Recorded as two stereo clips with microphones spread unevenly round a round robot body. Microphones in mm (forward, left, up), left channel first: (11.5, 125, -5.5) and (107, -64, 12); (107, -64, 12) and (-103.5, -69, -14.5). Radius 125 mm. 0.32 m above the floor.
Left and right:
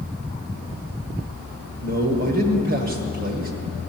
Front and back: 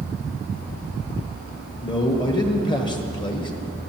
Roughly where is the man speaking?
Ahead right.